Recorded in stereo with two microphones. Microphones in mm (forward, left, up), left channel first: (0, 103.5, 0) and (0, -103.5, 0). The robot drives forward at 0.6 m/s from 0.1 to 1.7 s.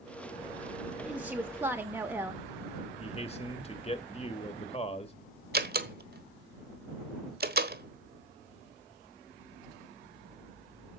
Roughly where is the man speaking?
Left.